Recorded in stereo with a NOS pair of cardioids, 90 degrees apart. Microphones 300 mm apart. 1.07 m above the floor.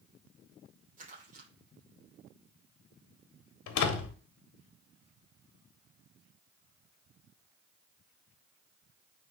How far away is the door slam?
About 1.8 m.